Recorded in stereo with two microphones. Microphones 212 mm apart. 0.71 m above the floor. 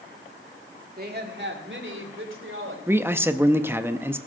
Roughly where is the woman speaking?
Right.